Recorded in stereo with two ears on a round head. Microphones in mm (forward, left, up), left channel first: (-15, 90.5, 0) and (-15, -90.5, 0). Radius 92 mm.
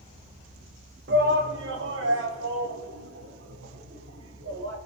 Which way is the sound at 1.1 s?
55° right (ahead or behind).